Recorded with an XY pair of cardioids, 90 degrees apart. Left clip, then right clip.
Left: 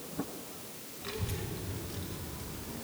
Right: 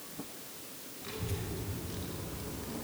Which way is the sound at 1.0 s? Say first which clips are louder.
Left 1 dB; 25° left.